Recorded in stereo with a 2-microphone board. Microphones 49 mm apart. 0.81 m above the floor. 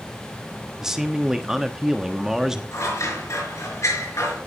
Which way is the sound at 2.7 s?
85° left.